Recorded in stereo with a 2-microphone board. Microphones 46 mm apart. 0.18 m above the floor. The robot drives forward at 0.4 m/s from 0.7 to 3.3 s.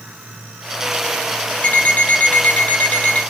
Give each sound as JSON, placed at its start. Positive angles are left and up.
{"t": 1.6, "sound": "an alarm clock", "side_deg": 40, "distance_m": 0.9}